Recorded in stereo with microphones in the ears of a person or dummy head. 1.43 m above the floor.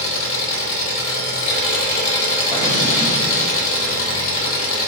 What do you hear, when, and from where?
0.0 s an engine running: 45° left (ahead or behind), 3 m
2.5 s an explosion: 40° left (ahead or behind), 2.5 m